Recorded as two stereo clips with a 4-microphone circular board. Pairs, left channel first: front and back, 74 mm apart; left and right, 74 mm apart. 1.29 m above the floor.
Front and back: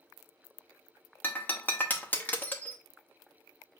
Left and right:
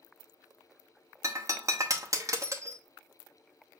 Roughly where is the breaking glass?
Ahead right.